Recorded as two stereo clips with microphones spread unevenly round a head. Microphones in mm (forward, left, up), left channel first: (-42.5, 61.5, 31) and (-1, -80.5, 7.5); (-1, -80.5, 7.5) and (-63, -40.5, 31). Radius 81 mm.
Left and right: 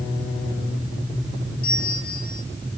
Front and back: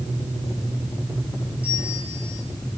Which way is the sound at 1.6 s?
65° left.